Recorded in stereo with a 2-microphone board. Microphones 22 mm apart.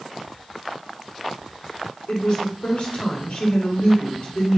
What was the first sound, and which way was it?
A woman speaking, 60° left (ahead or behind).